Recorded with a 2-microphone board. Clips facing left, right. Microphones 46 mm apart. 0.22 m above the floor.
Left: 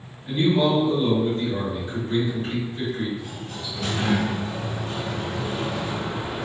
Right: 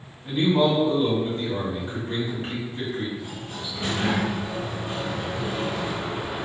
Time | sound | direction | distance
0.2 | a man speaking | 40° right (ahead or behind) | 1.8 m
3.2 | a sliding door | 30° right (ahead or behind) | 1.8 m